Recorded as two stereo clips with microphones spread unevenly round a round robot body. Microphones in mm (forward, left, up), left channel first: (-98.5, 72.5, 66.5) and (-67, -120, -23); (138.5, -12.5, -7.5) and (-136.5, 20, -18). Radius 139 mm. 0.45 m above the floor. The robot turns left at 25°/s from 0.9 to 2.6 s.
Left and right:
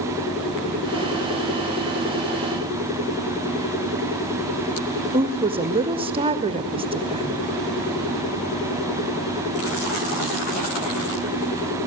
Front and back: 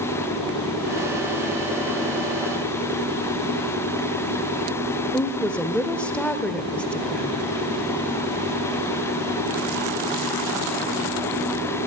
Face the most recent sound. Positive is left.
turn(degrees=-95)